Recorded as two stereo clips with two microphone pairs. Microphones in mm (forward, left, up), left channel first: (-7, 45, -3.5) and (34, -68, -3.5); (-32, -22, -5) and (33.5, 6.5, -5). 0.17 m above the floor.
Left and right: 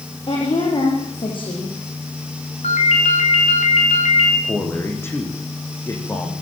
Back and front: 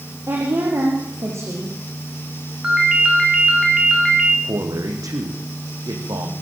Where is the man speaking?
40° left, 7.5 m.